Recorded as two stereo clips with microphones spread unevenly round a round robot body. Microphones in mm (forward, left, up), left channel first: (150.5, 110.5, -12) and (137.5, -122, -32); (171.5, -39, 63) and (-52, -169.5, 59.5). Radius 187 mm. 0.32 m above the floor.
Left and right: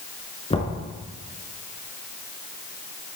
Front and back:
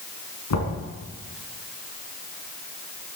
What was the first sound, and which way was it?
Knocking, 20° left.